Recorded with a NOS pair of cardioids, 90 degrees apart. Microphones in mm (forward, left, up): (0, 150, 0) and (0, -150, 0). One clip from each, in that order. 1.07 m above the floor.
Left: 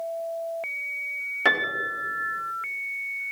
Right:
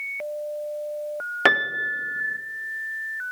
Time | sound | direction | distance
1.4 | a piano | 55° right | 1.0 m